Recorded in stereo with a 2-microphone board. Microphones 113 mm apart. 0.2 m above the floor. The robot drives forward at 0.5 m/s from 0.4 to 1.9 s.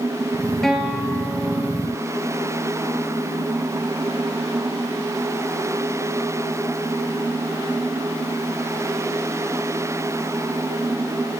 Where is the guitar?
5° left (ahead or behind), 1.5 m; by 1.9 s centre (ahead or behind), 2 m.